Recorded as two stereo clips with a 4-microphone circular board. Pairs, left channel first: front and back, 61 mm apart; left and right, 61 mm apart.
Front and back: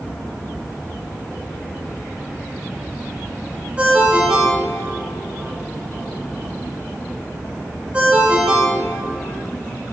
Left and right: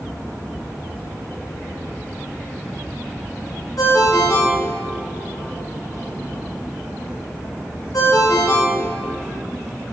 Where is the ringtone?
110° left, 1.5 m.